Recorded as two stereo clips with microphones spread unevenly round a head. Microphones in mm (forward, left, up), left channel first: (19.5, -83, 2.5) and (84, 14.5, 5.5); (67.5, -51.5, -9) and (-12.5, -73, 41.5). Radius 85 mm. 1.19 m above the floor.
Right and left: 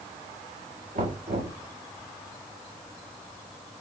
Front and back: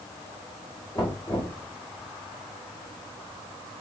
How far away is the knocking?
About 1.8 m.